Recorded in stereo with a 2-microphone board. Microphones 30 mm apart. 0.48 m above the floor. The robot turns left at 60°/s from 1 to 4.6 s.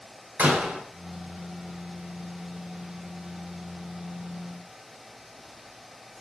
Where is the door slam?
60° right (ahead or behind), 1.5 m.